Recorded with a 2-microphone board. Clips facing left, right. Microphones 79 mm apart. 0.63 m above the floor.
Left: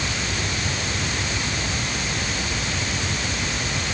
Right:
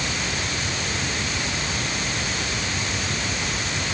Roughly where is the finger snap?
No finger snap in this recording.